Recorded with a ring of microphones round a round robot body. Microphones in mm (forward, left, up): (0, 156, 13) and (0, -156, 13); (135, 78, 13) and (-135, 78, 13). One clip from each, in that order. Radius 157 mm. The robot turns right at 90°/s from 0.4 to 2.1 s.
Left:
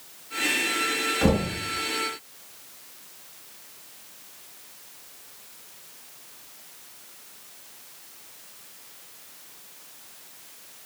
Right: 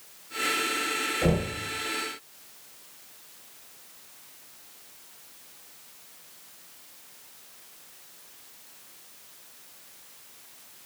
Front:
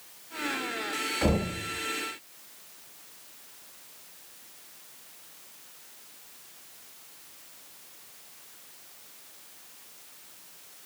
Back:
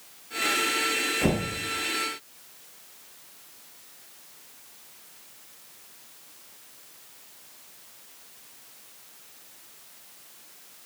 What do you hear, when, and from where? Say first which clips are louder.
1.2 s knocking: left 3 dB, back 1 dB; 80° left, 3.5 m; by 1.5 s 110° left, 3.5 m